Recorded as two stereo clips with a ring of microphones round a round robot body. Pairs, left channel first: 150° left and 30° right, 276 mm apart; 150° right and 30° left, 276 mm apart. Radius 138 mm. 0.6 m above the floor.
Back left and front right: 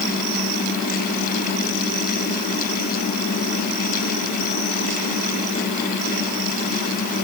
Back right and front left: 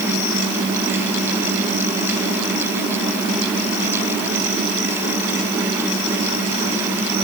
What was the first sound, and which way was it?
Only background noise.